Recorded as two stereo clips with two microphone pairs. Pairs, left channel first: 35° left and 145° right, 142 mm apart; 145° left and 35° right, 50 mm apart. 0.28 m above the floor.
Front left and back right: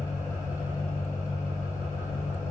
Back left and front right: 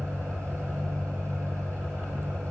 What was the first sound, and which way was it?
An engine running, 35° right.